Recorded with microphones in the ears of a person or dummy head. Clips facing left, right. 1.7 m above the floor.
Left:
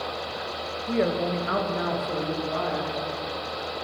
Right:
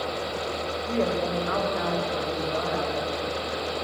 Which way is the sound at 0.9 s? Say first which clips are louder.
Left 2 dB; 15° left (ahead or behind).